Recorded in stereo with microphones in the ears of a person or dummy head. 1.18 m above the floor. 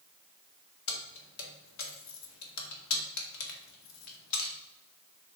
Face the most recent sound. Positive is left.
turn(degrees=85)